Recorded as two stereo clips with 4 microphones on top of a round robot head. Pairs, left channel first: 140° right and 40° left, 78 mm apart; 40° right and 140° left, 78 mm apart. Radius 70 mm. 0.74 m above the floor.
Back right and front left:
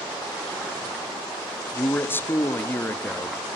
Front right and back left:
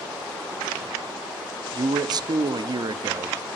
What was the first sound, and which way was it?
A man speaking, 160° left.